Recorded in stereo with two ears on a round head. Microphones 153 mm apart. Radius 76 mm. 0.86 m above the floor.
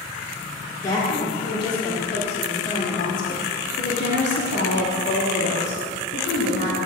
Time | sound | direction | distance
0.8 | a woman speaking | 20° left (ahead or behind) | 2 m